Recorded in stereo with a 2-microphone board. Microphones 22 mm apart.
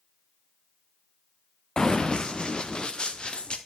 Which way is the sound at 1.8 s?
35° left (ahead or behind).